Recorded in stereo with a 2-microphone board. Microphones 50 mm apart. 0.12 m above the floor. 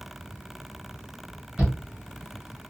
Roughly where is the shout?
Right.